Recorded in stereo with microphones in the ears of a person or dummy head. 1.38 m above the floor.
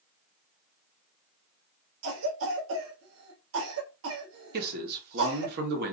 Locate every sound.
2.0 s a cough: 75° right (ahead or behind), 1.0 m
4.5 s a man speaking: 55° right (ahead or behind), 1.2 m